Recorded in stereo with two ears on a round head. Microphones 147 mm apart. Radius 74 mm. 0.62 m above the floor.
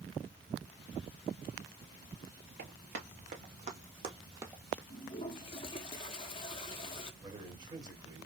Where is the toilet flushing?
30° left (ahead or behind), 1.0 m.